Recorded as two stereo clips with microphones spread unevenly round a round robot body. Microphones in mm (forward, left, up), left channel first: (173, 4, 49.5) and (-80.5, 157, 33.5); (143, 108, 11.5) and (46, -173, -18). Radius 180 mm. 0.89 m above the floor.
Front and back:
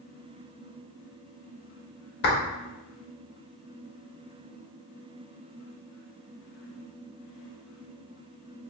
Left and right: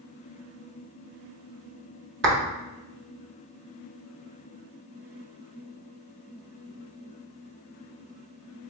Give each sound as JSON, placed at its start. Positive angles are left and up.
{"t": 2.2, "sound": "a clap", "azimuth_deg": -80, "distance_m": 0.9}